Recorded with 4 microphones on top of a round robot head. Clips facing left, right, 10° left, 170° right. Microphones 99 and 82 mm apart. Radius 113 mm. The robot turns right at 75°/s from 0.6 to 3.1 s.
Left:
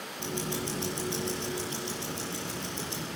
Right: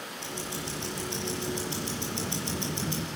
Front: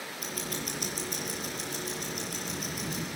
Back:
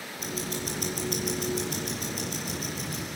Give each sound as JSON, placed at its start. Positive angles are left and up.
{"t": 0.2, "sound": "ticking", "azimuth_deg": 130, "distance_m": 6.0}